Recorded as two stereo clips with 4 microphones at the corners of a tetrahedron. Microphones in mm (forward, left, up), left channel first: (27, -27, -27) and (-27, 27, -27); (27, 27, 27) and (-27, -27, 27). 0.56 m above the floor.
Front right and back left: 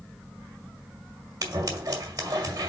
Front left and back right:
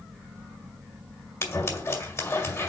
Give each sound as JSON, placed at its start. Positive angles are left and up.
{"t": 1.4, "sound": "scissors", "azimuth_deg": 100, "distance_m": 1.9}